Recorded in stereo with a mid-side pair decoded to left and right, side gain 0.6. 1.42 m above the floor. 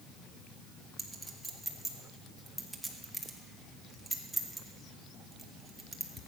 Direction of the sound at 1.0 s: 5° right.